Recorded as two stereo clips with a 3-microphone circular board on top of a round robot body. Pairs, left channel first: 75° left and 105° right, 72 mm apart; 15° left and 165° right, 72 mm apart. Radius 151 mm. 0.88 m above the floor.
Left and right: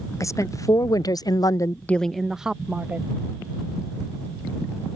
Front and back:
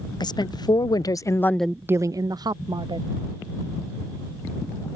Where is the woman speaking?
30° left; by 3.1 s 175° right.